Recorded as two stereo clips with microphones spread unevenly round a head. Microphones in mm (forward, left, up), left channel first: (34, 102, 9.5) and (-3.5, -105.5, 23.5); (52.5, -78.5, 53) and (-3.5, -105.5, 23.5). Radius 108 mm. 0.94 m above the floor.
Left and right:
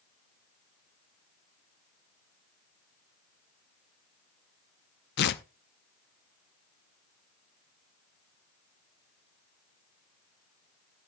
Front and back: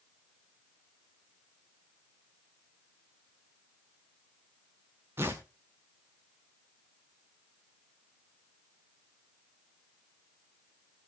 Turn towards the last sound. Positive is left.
turn(degrees=125)